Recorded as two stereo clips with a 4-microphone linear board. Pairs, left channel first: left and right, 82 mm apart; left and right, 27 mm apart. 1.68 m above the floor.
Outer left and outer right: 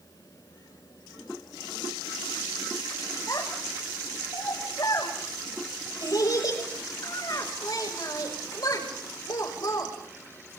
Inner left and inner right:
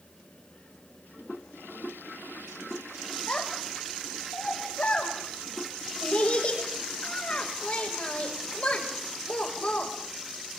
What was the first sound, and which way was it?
A child speaking, 50° left (ahead or behind).